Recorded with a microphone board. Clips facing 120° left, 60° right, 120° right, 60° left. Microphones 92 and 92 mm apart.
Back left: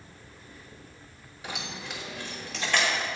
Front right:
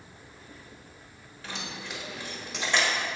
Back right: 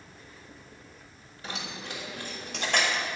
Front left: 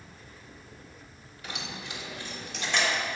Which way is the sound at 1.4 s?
170° right.